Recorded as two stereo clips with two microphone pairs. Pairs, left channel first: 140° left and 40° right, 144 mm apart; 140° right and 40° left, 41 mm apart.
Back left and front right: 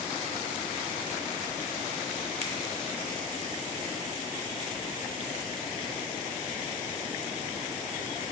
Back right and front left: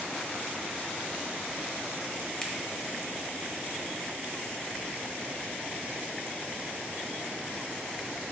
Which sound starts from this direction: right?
A finger snap, at 2.4 s.